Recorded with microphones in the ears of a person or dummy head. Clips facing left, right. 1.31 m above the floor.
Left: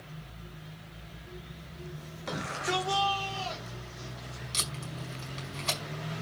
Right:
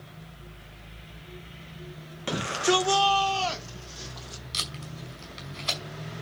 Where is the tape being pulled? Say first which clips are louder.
Left 1 dB; 15° right (ahead or behind), 5.5 m.